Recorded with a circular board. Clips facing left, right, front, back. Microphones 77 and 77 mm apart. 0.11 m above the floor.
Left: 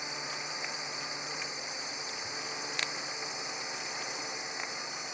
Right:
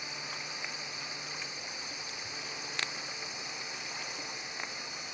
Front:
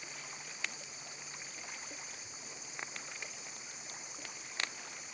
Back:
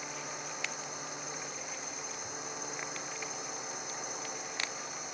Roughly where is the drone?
Behind.